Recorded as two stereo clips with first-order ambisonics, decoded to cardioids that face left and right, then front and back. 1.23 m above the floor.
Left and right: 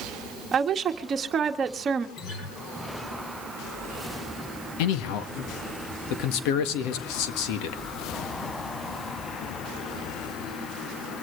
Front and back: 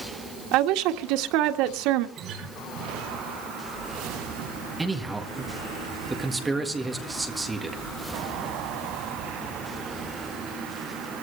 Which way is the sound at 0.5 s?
155° right.